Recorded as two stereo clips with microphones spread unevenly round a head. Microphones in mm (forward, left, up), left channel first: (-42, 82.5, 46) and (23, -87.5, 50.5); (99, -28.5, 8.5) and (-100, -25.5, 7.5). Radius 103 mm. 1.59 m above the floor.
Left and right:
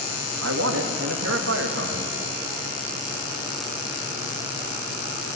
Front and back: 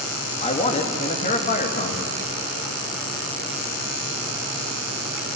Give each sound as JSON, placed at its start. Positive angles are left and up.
{"t": 0.4, "sound": "a man speaking", "azimuth_deg": -60, "distance_m": 2.5}